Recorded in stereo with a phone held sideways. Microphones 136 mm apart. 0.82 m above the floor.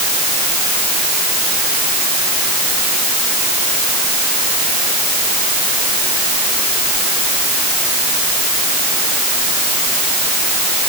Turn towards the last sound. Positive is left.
No sound to turn to.